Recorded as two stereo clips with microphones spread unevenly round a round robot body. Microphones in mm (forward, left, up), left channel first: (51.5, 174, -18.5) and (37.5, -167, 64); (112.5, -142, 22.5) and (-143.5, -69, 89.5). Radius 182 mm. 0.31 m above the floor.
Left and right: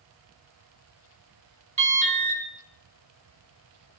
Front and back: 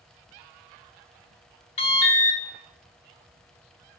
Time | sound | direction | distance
1.8 | an alarm | 15° right | 1.8 m